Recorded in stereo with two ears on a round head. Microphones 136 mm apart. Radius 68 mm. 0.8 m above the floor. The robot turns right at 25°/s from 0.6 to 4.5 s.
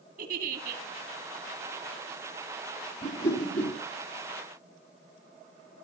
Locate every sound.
0.2 s a giggle: 55° right (ahead or behind), 2 m; by 0.8 s 60° right (ahead or behind), 2 m
3.0 s a whoosh: 25° left (ahead or behind), 3 m; by 3.8 s 5° left (ahead or behind), 3 m